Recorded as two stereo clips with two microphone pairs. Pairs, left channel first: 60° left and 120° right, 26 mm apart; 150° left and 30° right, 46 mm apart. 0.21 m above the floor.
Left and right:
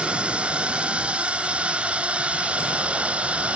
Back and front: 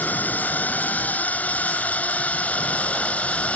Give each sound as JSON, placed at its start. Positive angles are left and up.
{"t": 0.0, "sound": "a drone", "azimuth_deg": -155}